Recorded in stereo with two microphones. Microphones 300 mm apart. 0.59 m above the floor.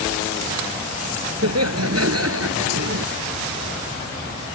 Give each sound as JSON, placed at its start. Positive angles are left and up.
{"t": 1.4, "sound": "laughter", "side_deg": -55}